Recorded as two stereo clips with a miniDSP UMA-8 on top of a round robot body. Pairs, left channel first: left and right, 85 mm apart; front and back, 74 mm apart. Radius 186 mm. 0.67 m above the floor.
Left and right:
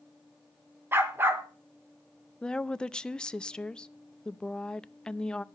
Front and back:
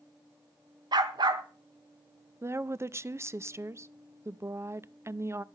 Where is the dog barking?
160° right, 0.7 m.